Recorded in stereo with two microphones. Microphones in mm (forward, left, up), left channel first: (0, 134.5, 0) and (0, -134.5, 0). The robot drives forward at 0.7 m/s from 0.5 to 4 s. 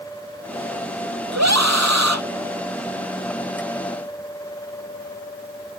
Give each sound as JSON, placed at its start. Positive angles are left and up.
{"t": 1.3, "sound": "a scream", "side_deg": -75}